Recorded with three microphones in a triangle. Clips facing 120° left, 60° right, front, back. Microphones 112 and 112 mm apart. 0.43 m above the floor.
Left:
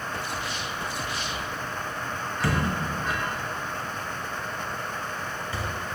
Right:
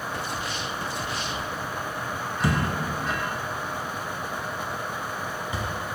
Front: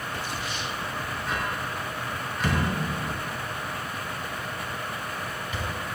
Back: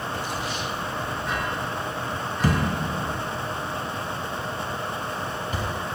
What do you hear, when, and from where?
2.4 s a thud: 130° right, 1.7 m